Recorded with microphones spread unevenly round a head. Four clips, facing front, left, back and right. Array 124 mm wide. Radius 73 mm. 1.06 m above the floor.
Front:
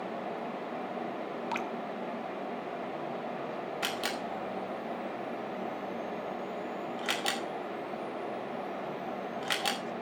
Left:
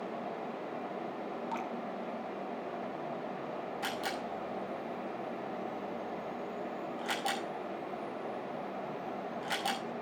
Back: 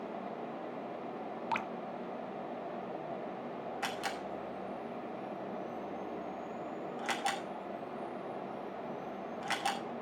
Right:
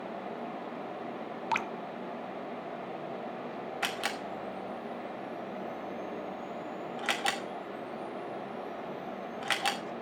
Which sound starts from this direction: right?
Dripping, at 1.5 s.